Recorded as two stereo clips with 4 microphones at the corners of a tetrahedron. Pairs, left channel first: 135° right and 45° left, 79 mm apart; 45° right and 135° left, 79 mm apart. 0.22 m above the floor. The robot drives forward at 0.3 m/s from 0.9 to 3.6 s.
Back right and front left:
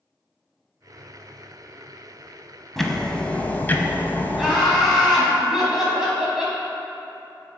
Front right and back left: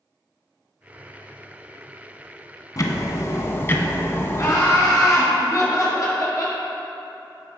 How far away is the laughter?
About 1.7 m.